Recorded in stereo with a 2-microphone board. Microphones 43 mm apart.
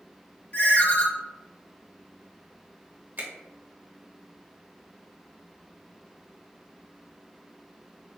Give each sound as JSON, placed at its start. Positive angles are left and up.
{"t": 0.5, "sound": "a ringtone", "side_deg": 40, "distance_m": 1.0}
{"t": 3.2, "sound": "a finger snap", "side_deg": -45, "distance_m": 1.3}